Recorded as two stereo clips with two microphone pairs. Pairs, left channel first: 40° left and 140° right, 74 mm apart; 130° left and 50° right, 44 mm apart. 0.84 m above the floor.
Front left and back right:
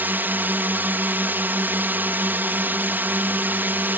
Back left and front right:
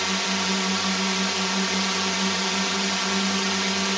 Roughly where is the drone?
Behind right.